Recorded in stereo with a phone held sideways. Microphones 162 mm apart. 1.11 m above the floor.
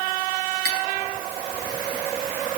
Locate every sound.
0.7 s cutlery clinking: 90° right, 9 m